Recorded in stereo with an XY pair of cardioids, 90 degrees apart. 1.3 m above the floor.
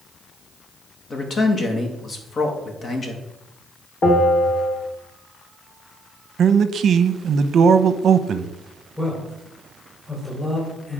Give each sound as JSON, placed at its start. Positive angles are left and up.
{"t": 1.1, "sound": "a man speaking", "azimuth_deg": 45, "distance_m": 2.0}
{"t": 4.0, "sound": "a bell", "azimuth_deg": 55, "distance_m": 3.0}
{"t": 6.4, "sound": "a man speaking", "azimuth_deg": -65, "distance_m": 0.7}
{"t": 9.0, "sound": "a man speaking", "azimuth_deg": 15, "distance_m": 4.5}